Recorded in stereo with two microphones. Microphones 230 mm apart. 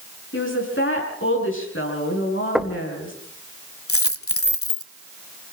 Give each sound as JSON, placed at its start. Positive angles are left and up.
{"t": 0.3, "sound": "a woman speaking", "side_deg": 60, "distance_m": 8.0}
{"t": 2.5, "sound": "knocking", "side_deg": -5, "distance_m": 1.6}
{"t": 3.9, "sound": "a dropped coin", "side_deg": 70, "distance_m": 1.3}